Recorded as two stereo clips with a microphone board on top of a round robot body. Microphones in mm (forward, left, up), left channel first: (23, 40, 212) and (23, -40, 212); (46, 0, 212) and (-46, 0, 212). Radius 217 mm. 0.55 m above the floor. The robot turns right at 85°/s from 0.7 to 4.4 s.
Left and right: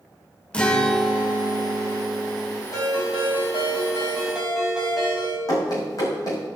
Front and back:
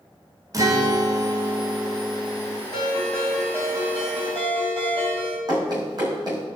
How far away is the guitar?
About 1.5 m.